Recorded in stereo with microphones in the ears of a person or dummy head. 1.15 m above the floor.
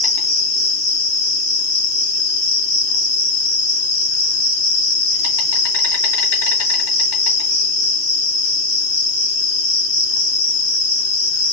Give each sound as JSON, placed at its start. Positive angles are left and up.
{"t": 0.0, "sound": "an insect", "side_deg": 75, "distance_m": 2.5}